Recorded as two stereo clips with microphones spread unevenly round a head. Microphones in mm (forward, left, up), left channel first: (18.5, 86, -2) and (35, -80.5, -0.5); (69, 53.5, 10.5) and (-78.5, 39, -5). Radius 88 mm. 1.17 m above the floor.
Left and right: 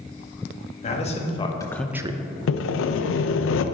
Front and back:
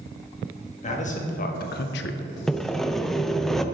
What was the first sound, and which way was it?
A man speaking, 45° left.